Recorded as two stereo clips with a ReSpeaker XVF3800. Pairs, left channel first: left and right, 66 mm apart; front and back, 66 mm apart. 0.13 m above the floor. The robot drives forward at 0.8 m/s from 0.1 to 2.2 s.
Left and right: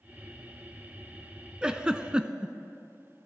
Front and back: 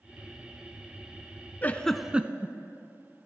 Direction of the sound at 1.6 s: 25° right.